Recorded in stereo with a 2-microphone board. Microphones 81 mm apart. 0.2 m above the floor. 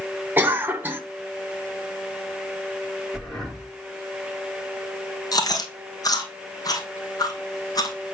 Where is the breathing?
Centre (ahead or behind), 5 m.